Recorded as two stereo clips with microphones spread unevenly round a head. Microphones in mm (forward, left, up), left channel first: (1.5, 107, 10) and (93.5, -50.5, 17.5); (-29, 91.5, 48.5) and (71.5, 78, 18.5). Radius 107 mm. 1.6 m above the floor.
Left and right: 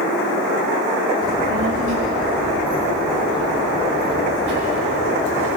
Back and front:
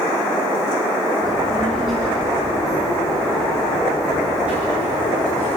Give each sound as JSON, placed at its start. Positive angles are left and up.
{"t": 1.2, "sound": "a child speaking", "azimuth_deg": -70, "distance_m": 1.5}